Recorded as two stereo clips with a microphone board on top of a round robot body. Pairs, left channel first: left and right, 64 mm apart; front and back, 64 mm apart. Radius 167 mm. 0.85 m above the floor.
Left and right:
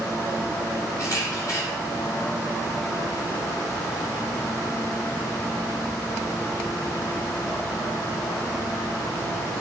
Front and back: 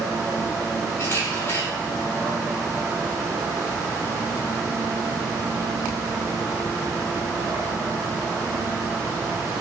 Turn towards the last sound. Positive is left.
turn(degrees=55)